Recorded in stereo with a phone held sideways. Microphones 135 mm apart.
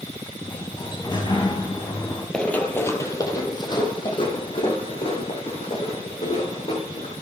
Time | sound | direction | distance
0.4 | a sliding door | 35° left (ahead or behind) | 2.5 m
2.3 | running footsteps | 5° left (ahead or behind) | 1.2 m